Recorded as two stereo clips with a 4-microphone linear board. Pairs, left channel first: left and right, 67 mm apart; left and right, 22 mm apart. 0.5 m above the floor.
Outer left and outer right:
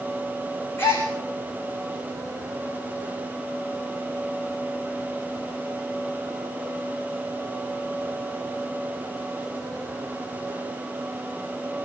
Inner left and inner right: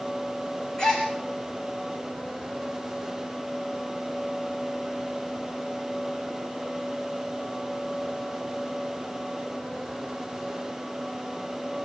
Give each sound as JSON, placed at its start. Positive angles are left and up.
{"t": 0.8, "sound": "a gasp", "side_deg": 30, "distance_m": 5.5}